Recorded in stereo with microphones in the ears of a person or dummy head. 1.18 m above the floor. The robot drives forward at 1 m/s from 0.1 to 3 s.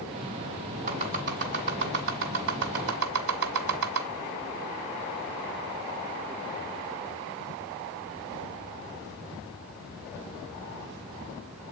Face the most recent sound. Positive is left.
turn(degrees=-65)  # may be behind; listen again after turning